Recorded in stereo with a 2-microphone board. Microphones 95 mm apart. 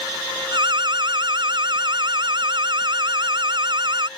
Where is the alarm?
50° right (ahead or behind).